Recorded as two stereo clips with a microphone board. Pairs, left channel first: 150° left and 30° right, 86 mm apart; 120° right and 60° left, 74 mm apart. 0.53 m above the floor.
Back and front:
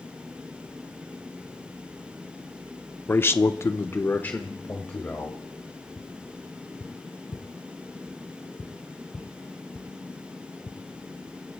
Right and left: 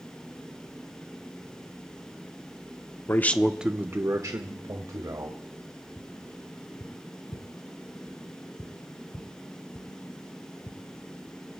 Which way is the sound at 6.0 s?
140° right.